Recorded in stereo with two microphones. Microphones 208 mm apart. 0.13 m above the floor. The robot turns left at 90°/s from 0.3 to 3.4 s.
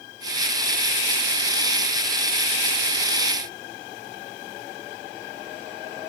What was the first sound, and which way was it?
Only background noise.